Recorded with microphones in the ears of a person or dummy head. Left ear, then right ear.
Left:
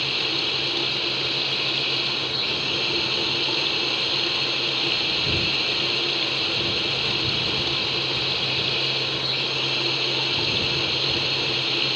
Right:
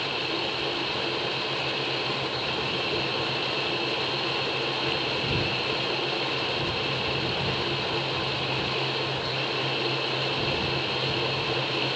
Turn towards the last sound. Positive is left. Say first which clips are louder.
# left 5 dB
turn(degrees=35)  # may be behind; listen again after turning